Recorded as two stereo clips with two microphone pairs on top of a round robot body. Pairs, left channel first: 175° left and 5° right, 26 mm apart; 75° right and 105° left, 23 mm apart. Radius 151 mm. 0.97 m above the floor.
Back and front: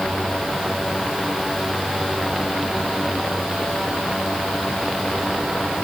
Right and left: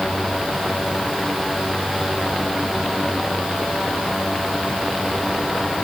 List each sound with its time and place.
Only background noise.